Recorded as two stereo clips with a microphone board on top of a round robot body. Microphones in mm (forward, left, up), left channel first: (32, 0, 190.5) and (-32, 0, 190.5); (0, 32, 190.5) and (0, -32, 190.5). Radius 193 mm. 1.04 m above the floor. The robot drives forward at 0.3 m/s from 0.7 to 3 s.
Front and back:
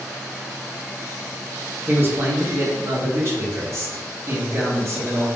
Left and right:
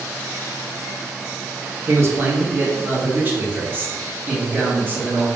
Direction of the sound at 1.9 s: 130° right.